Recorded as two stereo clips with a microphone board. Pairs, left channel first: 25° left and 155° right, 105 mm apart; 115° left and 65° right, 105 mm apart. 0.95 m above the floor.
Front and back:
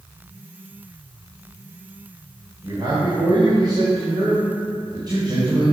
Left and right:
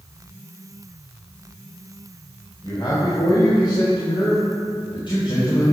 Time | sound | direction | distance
2.6 | a man speaking | 155° left | 4 m